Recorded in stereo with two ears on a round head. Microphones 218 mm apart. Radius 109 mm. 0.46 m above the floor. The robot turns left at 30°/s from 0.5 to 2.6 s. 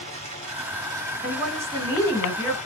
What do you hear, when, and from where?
0.0 s running water: 150° right, 2 m; by 2.7 s 150° left, 2 m
1.2 s a woman speaking: 155° right, 2 m; by 2.6 s 165° left, 2 m